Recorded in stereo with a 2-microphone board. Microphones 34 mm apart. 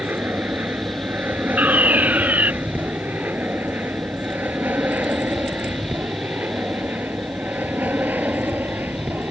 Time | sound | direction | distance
0.0 | an aircraft | 75° right (ahead or behind) | ?
1.6 | a fire alarm | 65° right (ahead or behind) | ?